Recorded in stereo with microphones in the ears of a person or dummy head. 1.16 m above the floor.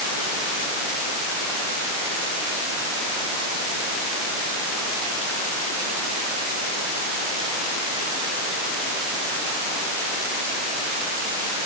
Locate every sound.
Only background noise.